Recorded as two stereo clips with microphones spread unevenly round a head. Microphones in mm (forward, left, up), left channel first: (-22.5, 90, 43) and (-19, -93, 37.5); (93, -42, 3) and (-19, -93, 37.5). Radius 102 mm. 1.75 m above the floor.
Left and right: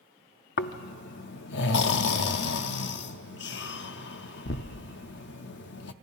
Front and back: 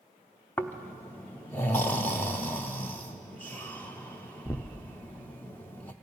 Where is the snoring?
115° left, 0.6 m.